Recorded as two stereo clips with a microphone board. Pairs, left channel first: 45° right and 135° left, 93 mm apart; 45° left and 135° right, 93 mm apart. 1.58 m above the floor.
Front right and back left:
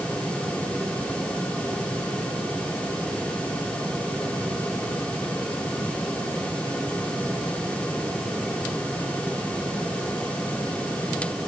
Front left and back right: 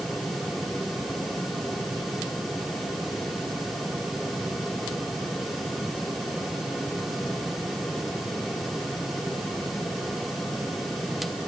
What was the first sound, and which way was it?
Only background noise.